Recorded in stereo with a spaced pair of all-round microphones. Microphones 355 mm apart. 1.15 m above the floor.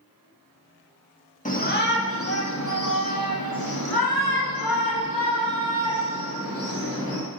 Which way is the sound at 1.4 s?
20° left (ahead or behind).